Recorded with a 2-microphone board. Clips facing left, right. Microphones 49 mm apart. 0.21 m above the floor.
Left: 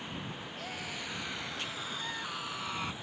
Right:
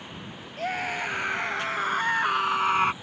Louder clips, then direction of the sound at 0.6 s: Right 15 dB; 50° right (ahead or behind).